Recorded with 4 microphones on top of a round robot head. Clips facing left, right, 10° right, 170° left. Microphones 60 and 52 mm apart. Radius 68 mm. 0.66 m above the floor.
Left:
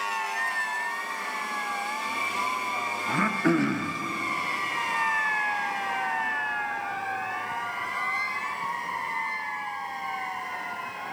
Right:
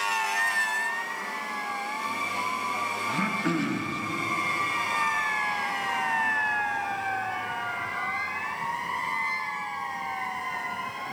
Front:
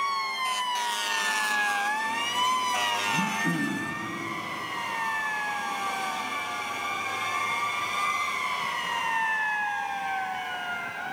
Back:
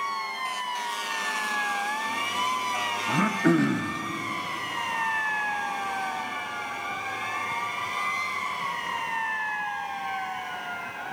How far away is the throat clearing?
About 0.5 m.